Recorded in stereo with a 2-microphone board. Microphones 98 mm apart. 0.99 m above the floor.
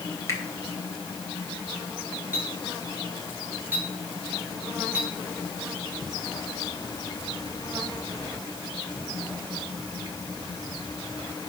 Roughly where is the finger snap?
Left.